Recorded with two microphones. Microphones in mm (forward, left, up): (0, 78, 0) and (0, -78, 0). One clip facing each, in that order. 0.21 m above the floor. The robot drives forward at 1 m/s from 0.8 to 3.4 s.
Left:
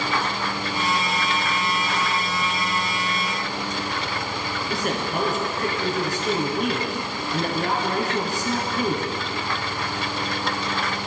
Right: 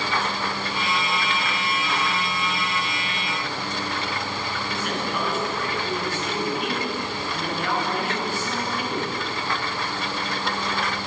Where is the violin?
No violin in this recording.